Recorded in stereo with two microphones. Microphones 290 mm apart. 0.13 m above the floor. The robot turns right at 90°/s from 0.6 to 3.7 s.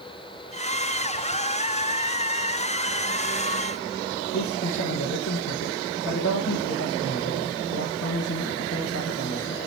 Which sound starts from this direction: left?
A man speaking, at 4.3 s.